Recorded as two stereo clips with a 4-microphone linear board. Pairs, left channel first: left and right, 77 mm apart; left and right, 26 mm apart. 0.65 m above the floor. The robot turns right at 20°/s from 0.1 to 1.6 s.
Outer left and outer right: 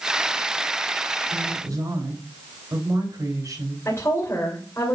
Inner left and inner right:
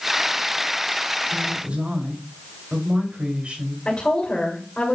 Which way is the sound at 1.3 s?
45° right (ahead or behind).